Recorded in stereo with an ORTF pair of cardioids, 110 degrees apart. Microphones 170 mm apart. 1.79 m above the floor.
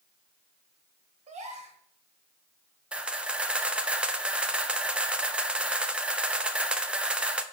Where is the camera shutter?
5° right, 0.6 m.